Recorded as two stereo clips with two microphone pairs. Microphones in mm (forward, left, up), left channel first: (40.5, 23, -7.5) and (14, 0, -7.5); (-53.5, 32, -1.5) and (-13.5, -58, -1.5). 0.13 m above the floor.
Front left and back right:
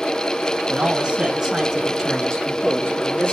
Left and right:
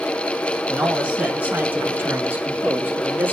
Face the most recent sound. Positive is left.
turn(degrees=0)